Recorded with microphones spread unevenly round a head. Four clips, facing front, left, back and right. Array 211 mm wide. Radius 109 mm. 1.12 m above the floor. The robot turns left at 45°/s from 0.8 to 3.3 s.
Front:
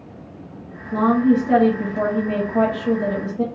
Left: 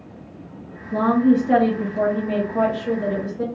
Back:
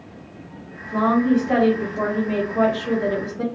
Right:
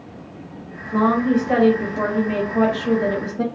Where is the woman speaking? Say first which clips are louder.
Left 1 dB, front 2 dB; 60° left, 1.5 m; by 3.5 s 45° right, 1.5 m.